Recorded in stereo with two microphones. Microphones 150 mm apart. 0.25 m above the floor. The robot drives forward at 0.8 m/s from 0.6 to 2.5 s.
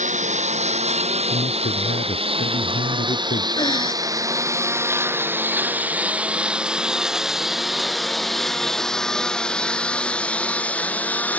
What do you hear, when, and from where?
0.0 s a lawn mower: 50° right (ahead or behind); by 11.4 s 10° left (ahead or behind)
1.3 s a man speaking: 80° left; by 3.5 s 85° left
3.6 s breathing: 30° left (ahead or behind)